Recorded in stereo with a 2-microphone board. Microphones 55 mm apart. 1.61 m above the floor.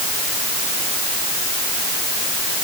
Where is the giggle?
No giggle in this recording.